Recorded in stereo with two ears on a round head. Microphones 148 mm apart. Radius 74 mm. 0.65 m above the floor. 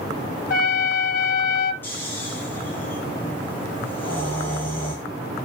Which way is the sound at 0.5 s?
55° left (ahead or behind).